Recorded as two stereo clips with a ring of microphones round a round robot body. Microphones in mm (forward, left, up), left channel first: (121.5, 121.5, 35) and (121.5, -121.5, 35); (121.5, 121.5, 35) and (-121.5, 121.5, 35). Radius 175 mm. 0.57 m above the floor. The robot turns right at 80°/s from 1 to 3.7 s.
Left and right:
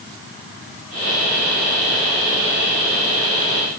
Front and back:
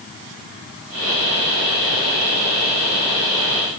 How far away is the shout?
No shout in this recording.